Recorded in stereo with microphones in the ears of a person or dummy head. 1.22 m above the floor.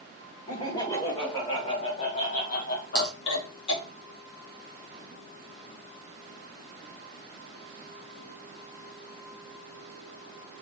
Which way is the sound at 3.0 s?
25° left (ahead or behind).